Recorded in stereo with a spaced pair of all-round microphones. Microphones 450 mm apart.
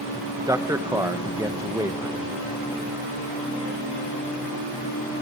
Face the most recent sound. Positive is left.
turn(degrees=-5)  # may be behind; listen again after turning